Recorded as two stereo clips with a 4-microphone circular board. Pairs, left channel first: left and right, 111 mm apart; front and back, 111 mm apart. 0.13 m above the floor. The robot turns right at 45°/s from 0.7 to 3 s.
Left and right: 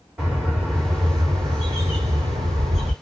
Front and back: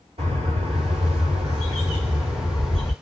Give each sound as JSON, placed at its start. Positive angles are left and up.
{"t": 0.2, "sound": "a bird", "azimuth_deg": -170, "distance_m": 1.7}